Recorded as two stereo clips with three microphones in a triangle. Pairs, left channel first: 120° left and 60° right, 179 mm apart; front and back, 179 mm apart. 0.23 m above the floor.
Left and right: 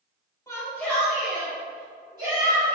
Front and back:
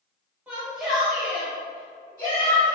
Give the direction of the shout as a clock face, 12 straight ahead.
8 o'clock.